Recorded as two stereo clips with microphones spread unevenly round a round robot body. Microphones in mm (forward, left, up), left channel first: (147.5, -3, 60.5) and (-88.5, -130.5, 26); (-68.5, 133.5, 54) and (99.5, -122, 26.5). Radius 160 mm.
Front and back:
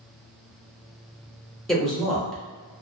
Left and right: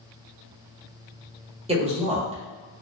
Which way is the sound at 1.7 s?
75° right.